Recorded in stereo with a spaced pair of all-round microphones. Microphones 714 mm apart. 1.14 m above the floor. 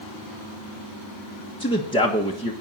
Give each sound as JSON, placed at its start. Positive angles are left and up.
{"t": 1.6, "sound": "a man speaking", "side_deg": 5, "distance_m": 1.3}